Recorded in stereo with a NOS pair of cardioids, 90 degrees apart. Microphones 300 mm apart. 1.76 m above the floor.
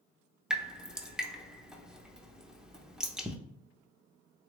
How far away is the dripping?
About 0.7 m.